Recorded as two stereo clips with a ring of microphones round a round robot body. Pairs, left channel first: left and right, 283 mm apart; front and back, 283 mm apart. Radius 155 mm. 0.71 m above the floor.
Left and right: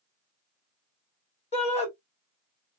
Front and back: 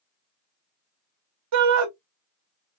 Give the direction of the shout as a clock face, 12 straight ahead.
7 o'clock.